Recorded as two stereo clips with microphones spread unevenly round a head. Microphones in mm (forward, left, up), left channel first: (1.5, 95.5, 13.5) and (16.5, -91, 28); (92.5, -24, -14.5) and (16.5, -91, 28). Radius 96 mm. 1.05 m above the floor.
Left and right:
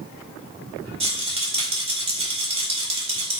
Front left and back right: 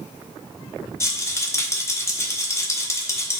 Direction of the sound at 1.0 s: 25° right.